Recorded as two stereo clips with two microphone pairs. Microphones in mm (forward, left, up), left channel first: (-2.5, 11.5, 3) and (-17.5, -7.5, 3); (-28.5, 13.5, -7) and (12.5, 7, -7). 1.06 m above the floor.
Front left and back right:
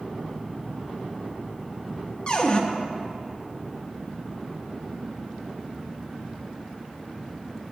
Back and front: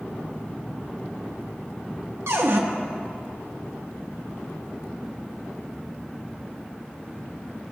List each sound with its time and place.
2.3 s a cupboard door: 5° right, 0.8 m